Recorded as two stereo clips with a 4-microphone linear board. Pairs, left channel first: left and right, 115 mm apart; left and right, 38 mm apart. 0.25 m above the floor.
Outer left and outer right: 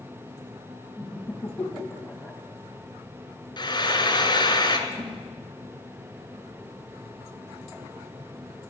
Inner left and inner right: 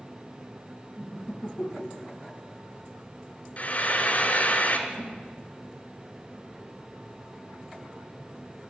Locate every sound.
1.0 s laughter: 10° left (ahead or behind), 1.3 m
3.6 s frying: 40° left (ahead or behind), 1.6 m
4.9 s a whoosh: 60° right (ahead or behind), 7.5 m